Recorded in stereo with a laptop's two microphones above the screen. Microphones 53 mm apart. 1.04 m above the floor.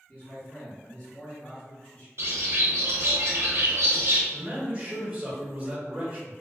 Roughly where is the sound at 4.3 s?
Right.